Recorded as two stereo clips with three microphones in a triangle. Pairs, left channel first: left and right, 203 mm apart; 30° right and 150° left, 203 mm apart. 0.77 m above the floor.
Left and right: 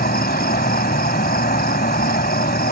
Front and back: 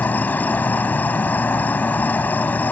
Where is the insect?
50° left.